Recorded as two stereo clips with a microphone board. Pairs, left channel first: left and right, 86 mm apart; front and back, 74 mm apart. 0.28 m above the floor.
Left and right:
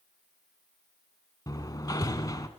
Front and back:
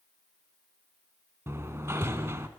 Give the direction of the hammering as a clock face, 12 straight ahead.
8 o'clock.